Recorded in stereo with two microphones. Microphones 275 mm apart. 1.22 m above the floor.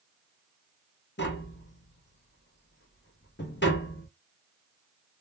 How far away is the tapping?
About 0.7 m.